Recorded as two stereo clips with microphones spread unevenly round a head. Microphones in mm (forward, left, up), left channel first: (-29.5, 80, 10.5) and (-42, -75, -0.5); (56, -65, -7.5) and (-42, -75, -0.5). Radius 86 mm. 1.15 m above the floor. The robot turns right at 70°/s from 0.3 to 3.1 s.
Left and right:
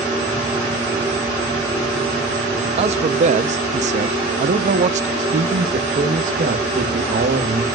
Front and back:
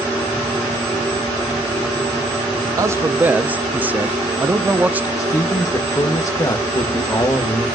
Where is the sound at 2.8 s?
125° right, 0.7 m; by 5.1 s 100° right, 0.7 m.